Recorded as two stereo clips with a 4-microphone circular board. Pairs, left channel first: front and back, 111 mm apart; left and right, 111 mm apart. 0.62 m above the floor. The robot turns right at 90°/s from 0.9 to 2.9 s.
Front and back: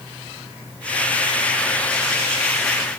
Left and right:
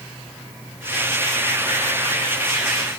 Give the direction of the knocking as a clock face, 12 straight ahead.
No knocking in this recording.